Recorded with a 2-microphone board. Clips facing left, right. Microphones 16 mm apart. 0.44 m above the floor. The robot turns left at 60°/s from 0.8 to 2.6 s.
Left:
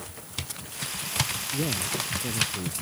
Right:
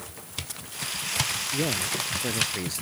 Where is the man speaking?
40° right; by 2.8 s 105° right.